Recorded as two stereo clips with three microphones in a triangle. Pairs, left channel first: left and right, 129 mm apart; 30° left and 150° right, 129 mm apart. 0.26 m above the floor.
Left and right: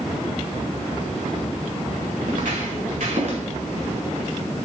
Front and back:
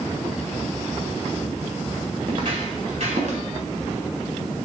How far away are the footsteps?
About 2.5 m.